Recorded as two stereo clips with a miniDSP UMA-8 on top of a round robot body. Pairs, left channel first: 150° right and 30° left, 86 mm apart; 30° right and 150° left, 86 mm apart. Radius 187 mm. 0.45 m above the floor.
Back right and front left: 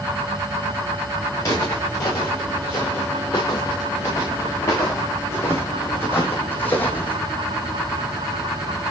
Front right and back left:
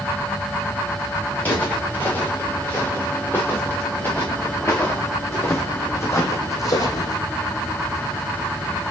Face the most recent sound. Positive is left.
turn(degrees=-75)